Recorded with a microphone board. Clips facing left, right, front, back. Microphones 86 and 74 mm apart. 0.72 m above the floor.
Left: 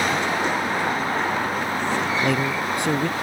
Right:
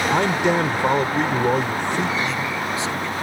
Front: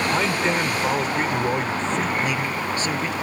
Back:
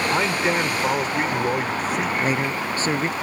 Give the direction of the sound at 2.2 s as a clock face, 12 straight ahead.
8 o'clock.